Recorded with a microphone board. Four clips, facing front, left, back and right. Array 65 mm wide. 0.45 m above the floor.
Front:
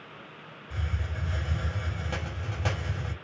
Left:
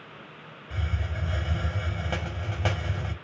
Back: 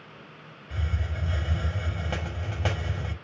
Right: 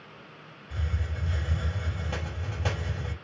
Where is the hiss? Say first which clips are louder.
Left 2 dB, back 2 dB; 125° left, 1.6 m.